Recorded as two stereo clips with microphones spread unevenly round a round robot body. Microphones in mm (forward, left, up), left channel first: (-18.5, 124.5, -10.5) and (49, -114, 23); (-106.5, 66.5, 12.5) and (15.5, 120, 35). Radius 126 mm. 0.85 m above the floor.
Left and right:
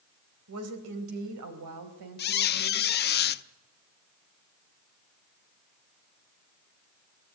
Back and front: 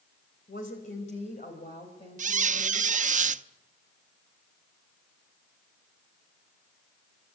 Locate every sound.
0.5 s a woman speaking: 110° right, 3.5 m; by 3.1 s 80° right, 5 m
2.2 s a squeak: 55° left, 0.7 m